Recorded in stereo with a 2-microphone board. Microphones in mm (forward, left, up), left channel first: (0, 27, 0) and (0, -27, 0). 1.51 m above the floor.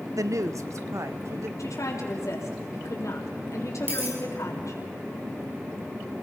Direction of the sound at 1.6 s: 75° left (ahead or behind).